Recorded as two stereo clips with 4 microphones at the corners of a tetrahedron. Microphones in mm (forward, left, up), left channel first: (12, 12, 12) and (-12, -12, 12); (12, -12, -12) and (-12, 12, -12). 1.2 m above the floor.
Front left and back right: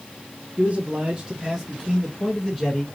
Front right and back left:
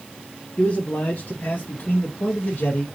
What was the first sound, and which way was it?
A man speaking, 75° right.